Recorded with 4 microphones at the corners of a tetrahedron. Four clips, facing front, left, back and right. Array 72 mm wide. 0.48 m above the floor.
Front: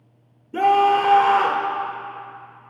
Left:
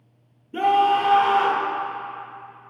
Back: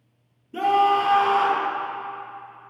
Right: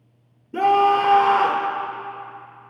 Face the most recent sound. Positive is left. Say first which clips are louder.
# right 2 dB, front 3 dB
turn(degrees=-30)